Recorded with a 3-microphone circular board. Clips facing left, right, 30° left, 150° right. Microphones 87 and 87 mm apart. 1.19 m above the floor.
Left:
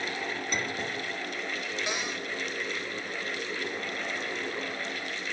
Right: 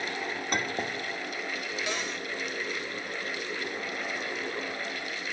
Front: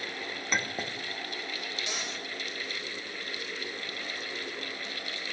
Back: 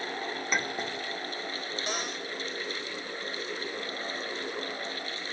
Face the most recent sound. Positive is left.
turn(degrees=165)